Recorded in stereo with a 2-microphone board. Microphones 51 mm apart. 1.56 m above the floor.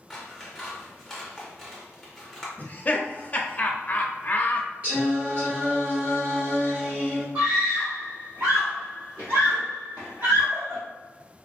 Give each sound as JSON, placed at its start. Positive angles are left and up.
{"t": 0.1, "sound": "scissors", "side_deg": 5, "distance_m": 0.7}
{"t": 2.6, "sound": "laughter", "side_deg": 30, "distance_m": 0.5}
{"t": 4.8, "sound": "singing", "side_deg": -30, "distance_m": 1.4}
{"t": 7.3, "sound": "a scream", "side_deg": -50, "distance_m": 0.9}